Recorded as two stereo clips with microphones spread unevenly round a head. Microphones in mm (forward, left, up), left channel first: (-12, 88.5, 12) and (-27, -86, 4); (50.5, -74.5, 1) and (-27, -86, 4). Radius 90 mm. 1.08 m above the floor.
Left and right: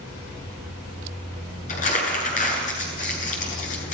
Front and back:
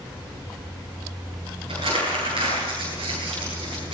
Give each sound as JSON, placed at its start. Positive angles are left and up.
{"t": 1.7, "sound": "crumpling", "azimuth_deg": 130, "distance_m": 8.5}